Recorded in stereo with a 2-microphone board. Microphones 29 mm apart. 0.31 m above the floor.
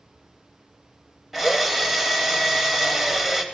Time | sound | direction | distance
1.3 | a drill | 10° right (ahead or behind) | 1.1 m